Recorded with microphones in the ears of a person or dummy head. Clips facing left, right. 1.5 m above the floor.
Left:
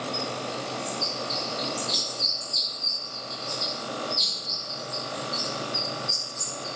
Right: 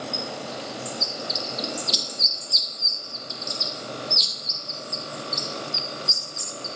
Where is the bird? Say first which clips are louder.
Left 1 dB; 40° right (ahead or behind), 1.5 m.